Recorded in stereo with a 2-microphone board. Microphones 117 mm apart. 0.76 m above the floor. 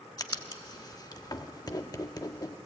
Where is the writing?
35° left (ahead or behind), 0.9 m.